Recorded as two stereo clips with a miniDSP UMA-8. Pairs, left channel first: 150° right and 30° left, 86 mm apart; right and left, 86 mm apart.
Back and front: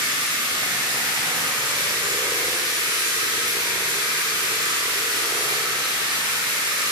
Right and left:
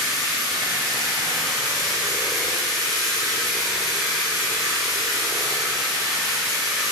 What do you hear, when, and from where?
0.0 s running water: straight ahead, 1.6 m